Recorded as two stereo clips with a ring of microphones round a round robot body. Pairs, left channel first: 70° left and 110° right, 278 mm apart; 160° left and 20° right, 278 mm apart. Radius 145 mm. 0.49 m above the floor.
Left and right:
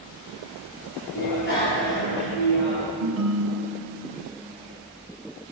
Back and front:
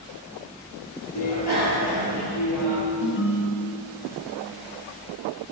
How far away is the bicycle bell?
About 8 m.